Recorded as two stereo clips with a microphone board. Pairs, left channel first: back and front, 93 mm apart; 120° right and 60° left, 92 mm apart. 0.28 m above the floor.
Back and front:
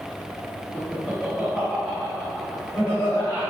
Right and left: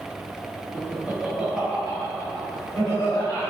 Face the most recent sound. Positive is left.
turn(degrees=-160)